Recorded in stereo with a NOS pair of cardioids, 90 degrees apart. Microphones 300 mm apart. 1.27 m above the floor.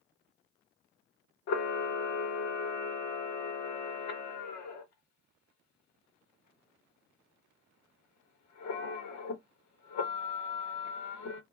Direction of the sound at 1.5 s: 65° left.